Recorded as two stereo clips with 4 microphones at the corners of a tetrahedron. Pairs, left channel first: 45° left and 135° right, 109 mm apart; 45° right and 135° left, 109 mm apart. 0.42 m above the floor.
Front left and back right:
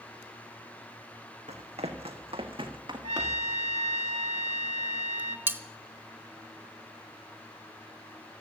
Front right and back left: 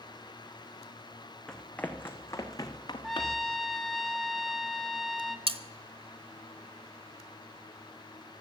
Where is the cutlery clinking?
155° left, 0.8 m.